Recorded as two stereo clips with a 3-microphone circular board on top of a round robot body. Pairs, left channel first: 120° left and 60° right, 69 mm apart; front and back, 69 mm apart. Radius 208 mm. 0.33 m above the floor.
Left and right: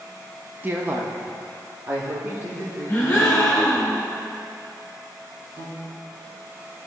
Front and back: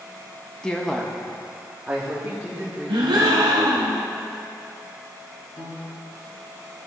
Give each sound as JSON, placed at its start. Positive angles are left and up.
{"t": 0.6, "sound": "a woman speaking", "azimuth_deg": -60, "distance_m": 0.9}
{"t": 2.9, "sound": "a gasp", "azimuth_deg": -175, "distance_m": 0.7}
{"t": 5.6, "sound": "a piano", "azimuth_deg": -10, "distance_m": 2.5}